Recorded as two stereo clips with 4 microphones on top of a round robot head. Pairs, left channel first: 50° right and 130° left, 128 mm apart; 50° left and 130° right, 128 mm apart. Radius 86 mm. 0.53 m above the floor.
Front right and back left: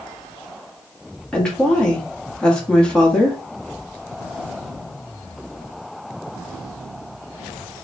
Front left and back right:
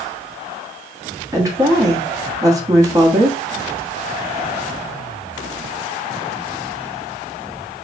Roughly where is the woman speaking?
Behind right.